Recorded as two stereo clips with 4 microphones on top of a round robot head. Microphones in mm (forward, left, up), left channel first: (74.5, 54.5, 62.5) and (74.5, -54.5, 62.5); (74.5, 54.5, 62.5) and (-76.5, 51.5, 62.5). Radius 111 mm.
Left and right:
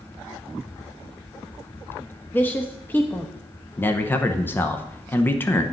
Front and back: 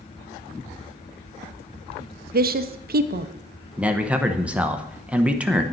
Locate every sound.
2.3 s a woman speaking: 165° left, 0.7 m
3.8 s a man speaking: 115° left, 0.8 m